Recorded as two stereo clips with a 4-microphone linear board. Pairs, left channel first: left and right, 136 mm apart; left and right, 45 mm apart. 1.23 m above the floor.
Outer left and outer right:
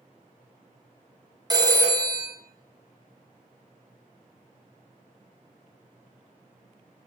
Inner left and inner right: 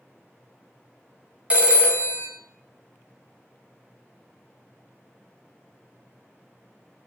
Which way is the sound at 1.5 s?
30° right (ahead or behind).